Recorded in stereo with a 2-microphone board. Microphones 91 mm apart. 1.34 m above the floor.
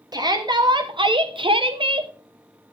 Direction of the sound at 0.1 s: 45° right (ahead or behind).